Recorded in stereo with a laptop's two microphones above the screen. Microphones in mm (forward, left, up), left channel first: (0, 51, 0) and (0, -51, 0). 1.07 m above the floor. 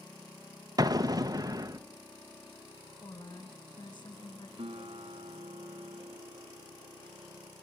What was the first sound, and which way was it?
An explosion, 40° right (ahead or behind).